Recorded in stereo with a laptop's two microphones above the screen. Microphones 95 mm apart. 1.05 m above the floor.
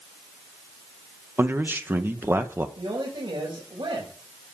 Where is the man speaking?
20° right (ahead or behind), 1.0 m.